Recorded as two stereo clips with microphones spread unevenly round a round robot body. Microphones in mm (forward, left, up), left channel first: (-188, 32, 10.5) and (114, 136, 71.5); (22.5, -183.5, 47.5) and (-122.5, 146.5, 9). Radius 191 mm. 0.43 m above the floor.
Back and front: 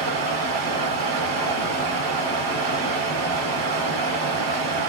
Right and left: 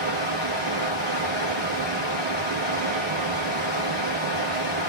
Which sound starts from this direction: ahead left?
Running water, at 0.0 s.